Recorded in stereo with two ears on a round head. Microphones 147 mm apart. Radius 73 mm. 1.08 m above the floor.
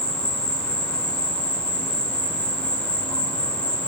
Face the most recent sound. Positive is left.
turn(degrees=10)  # may be behind; listen again after turning